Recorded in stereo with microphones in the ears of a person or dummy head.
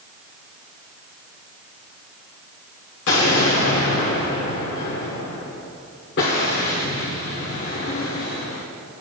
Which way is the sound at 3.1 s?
50° left (ahead or behind).